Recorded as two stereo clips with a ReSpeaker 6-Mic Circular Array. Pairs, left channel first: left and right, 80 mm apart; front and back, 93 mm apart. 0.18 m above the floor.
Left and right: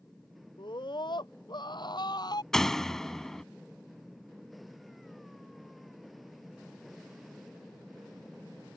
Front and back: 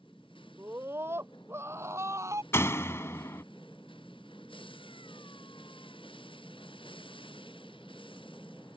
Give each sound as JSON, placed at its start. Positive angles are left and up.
{"t": 0.6, "sound": "a scream", "azimuth_deg": 115}
{"t": 2.5, "sound": "a door slam", "azimuth_deg": 10}